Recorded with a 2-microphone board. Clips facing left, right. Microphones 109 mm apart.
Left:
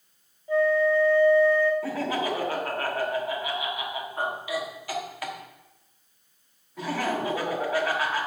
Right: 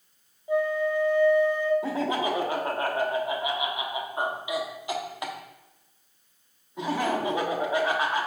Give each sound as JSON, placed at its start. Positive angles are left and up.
{"t": 0.5, "sound": "a flute", "side_deg": -20, "distance_m": 0.8}
{"t": 1.8, "sound": "laughter", "side_deg": -20, "distance_m": 1.2}